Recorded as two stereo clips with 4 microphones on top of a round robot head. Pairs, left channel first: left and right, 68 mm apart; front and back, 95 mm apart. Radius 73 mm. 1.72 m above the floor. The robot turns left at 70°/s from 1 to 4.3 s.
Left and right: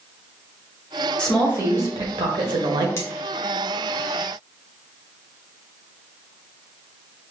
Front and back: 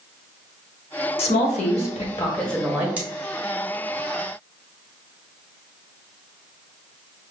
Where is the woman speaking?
10° left, 0.8 m; by 2.9 s 110° right, 0.8 m.